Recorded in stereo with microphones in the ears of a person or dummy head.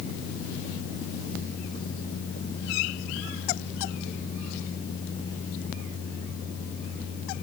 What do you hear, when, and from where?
Only background noise.